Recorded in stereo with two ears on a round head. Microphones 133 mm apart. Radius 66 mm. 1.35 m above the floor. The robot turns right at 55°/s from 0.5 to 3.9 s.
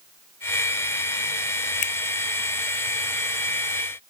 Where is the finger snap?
55° left (ahead or behind); by 1.9 s 60° left (ahead or behind).